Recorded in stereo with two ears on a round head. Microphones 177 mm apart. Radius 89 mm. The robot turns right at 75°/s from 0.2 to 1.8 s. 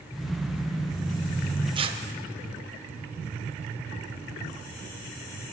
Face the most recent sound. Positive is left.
turn(degrees=-30)  # may be behind; listen again after turning